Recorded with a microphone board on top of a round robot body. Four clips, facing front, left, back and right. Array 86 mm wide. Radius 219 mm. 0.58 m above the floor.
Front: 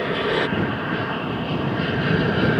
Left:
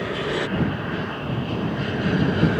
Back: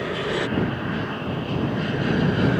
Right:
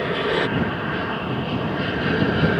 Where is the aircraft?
50° right.